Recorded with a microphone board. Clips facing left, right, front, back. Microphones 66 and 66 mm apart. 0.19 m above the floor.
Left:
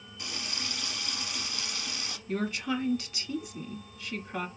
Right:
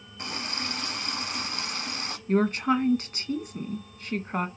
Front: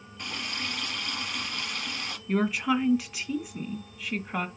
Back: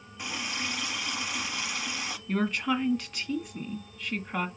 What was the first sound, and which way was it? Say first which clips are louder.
A running tap: right 5 dB, back 1 dB; 100° right.